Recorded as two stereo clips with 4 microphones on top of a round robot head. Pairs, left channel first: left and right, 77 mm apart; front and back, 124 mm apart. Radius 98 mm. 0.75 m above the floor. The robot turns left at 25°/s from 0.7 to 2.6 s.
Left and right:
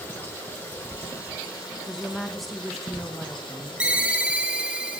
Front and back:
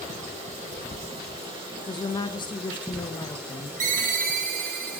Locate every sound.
0.0 s running water: 155° left, 4 m; by 5.0 s 105° left, 4 m
1.9 s a woman speaking: 15° left, 0.6 m; by 3.7 s 5° right, 0.6 m
3.8 s a ringtone: 165° right, 1.1 m